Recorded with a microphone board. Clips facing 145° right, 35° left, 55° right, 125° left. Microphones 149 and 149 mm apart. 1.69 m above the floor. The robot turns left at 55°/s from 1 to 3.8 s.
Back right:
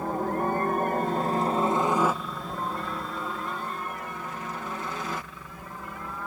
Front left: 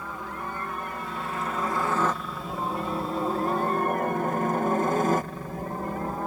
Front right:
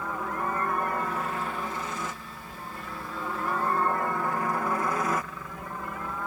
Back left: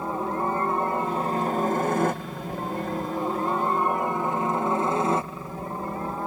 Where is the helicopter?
Straight behind; by 6.3 s 75° left.